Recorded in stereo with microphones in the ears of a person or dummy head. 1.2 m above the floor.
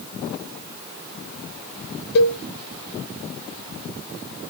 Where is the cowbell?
65° left (ahead or behind), 1.1 m.